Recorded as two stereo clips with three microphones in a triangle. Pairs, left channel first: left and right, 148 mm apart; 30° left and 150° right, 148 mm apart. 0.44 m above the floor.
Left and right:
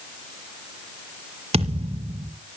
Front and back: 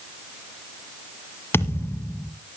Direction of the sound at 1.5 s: 45° right.